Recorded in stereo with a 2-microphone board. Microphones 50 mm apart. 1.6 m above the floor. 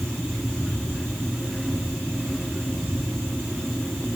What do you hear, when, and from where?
Only background noise.